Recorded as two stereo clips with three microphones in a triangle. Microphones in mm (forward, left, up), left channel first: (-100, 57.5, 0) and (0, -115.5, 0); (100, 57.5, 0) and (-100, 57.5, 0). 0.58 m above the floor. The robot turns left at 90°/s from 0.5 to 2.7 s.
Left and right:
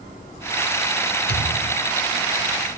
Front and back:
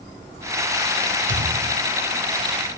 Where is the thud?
160° left, 0.7 m; by 1.9 s 105° left, 0.7 m.